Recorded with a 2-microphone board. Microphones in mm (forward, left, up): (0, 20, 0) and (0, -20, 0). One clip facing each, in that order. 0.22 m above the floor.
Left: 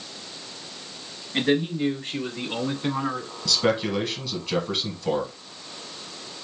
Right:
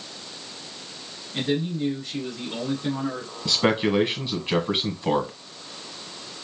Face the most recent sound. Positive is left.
turn(degrees=-30)  # may be behind; listen again after turning